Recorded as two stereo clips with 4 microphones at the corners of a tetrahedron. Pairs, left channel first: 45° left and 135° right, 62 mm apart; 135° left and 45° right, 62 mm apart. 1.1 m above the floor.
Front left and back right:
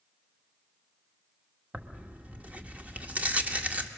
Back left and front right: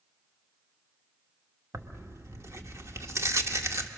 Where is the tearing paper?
75° right, 1.0 m.